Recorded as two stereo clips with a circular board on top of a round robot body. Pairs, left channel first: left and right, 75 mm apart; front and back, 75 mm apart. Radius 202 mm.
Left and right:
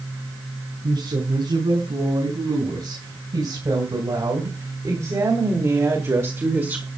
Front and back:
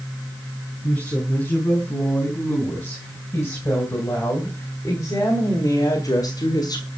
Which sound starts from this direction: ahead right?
A woman speaking, at 0.8 s.